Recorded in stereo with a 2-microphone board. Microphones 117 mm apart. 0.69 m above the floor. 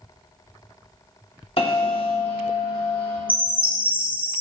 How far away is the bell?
About 1.4 m.